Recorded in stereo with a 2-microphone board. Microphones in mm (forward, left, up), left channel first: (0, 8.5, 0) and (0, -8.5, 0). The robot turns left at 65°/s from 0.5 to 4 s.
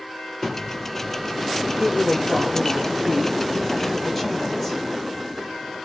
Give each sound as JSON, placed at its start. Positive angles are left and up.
{"t": 0.4, "sound": "a thud", "side_deg": 5, "distance_m": 2.5}
{"t": 1.8, "sound": "a woman speaking", "azimuth_deg": -60, "distance_m": 2.5}